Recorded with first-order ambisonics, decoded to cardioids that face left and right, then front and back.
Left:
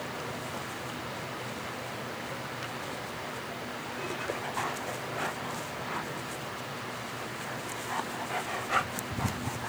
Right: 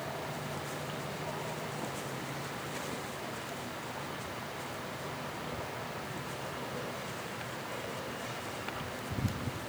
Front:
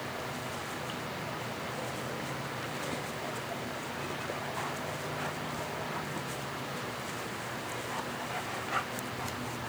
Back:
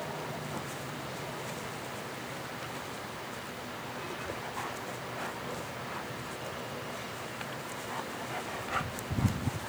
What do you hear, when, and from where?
Only background noise.